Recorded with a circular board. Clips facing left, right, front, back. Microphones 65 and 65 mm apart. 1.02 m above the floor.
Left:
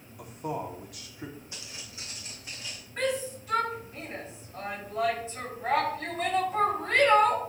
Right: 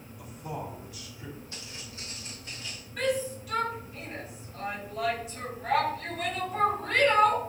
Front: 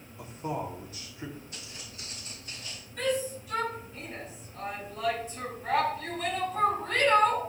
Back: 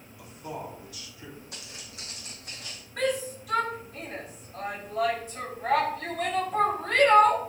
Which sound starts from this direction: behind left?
A shout, at 3.0 s.